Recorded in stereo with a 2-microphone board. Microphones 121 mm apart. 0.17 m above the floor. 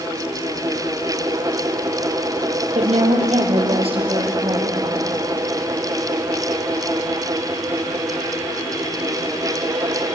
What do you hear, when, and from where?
2.8 s a woman speaking: 70° right (ahead or behind), 4.5 m; by 5.0 s 40° right (ahead or behind), 6 m